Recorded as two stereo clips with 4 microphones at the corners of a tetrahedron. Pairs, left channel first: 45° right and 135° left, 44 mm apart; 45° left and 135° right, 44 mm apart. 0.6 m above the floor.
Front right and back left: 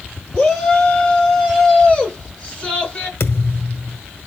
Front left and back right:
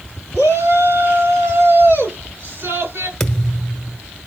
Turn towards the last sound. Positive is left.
turn(degrees=-35)